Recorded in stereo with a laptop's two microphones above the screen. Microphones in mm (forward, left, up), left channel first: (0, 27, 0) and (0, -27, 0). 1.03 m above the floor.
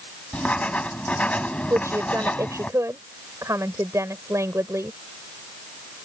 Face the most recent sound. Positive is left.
turn(degrees=-85)